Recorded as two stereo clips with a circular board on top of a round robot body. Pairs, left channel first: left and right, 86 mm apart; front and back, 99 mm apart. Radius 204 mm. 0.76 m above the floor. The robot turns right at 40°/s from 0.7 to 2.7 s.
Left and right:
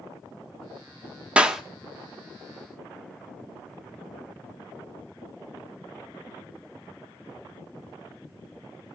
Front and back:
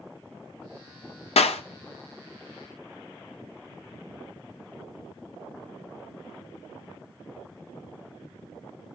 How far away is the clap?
About 1.4 m.